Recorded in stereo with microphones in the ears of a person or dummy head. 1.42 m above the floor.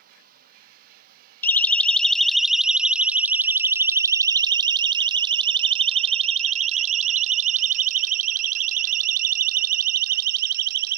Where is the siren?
10° left (ahead or behind); by 11.0 s 55° right (ahead or behind).